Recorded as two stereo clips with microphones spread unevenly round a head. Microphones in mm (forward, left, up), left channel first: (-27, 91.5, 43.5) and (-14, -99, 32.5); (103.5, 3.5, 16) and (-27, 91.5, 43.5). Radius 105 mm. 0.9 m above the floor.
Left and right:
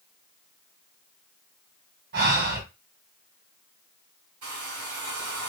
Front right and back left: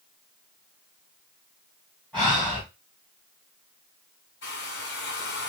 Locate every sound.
2.1 s breathing: 120° right, 2 m
4.4 s a hair dryer: 65° right, 1.8 m